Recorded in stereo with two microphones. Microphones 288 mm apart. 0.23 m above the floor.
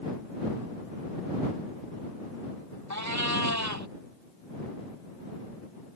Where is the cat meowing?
75° right (ahead or behind).